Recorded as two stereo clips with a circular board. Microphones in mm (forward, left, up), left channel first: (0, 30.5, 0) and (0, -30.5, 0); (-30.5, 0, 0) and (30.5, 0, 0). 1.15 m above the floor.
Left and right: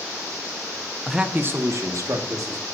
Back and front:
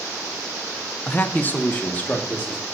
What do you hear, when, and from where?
1.1 s a man speaking: 175° right, 0.7 m; by 2.6 s 115° right, 2 m